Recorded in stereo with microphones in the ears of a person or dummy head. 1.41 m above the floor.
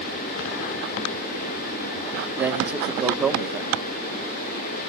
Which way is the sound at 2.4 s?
10° right (ahead or behind).